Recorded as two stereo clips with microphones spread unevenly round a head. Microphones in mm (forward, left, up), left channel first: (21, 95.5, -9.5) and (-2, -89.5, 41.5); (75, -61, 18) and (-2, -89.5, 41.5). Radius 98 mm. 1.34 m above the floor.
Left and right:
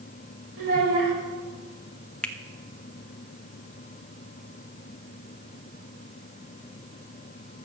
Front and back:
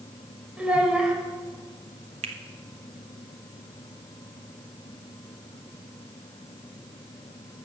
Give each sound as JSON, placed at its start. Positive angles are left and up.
{"t": 0.6, "sound": "a child speaking", "azimuth_deg": -85, "distance_m": 3.0}
{"t": 2.2, "sound": "a finger snap", "azimuth_deg": 165, "distance_m": 0.6}